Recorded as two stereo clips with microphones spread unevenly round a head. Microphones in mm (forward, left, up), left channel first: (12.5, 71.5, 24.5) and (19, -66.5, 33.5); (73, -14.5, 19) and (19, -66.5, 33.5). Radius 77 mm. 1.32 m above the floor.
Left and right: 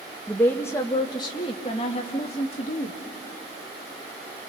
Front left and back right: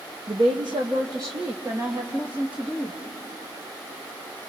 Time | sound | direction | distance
0.3 | a woman speaking | 175° left | 1.0 m